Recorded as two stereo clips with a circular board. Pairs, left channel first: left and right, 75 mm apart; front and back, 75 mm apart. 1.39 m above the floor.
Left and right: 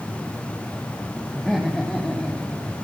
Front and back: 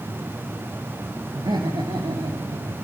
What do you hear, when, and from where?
1.4 s laughter: straight behind, 2.5 m; by 2.8 s 170° left, 4 m